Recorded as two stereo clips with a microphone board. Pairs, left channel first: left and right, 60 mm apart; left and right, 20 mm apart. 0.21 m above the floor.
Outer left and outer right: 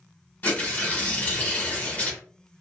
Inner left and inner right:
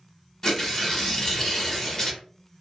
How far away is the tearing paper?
About 0.9 m.